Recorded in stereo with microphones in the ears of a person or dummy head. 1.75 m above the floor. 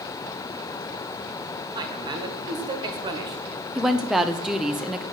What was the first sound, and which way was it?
A man speaking, 25° right (ahead or behind).